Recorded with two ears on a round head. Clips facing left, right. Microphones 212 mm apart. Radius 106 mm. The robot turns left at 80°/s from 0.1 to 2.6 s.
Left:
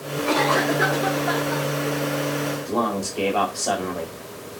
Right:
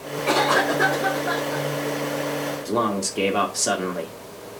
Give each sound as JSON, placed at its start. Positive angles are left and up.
{"t": 0.3, "sound": "a cough", "azimuth_deg": -130, "distance_m": 4.0}
{"t": 2.6, "sound": "a man speaking", "side_deg": -25, "distance_m": 2.0}